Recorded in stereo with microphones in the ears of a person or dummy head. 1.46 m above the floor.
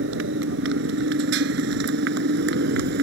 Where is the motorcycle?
80° right; by 3.0 s 65° right (ahead or behind).